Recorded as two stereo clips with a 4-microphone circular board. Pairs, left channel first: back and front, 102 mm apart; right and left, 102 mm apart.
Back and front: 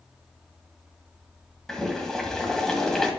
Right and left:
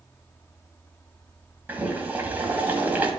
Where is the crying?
I don't hear crying.